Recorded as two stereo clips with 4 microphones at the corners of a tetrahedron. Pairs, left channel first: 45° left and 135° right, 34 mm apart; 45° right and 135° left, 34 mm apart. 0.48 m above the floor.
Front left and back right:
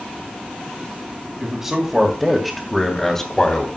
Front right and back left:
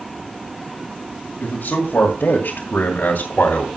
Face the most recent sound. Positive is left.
turn(degrees=-20)